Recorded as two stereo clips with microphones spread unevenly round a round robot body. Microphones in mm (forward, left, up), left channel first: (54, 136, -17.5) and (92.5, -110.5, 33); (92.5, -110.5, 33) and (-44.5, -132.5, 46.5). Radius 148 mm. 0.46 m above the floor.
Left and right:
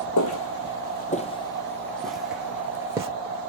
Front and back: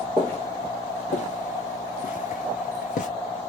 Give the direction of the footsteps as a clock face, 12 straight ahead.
9 o'clock.